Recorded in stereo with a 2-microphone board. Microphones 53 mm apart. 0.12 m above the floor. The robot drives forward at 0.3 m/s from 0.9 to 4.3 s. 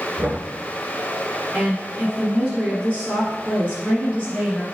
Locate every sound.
0.2 s knocking: 35° right (ahead or behind), 1.4 m
1.5 s a woman speaking: 20° right (ahead or behind), 1.8 m; by 4.6 s 25° right (ahead or behind), 1.7 m